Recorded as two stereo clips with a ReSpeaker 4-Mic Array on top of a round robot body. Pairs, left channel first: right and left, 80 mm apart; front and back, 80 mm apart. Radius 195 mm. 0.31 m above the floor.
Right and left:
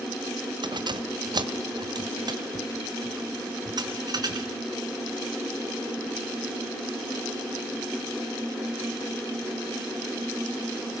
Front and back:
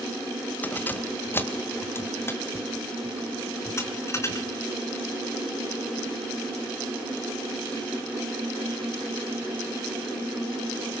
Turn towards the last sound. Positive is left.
turn(degrees=55)